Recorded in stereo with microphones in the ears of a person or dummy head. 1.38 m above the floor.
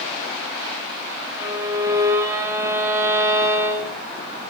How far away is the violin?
About 2.5 m.